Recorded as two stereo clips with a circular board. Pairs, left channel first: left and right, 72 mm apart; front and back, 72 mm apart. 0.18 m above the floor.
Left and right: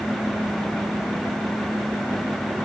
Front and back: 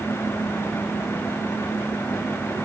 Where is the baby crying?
I don't hear a baby crying.